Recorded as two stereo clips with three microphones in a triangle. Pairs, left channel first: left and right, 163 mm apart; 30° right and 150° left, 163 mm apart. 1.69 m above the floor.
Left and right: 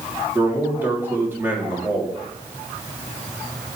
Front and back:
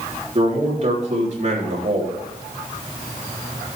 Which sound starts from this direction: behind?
A man speaking, at 0.3 s.